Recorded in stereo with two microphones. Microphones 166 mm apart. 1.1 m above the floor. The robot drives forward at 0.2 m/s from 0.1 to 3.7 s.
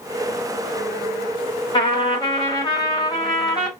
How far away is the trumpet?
About 1.1 m.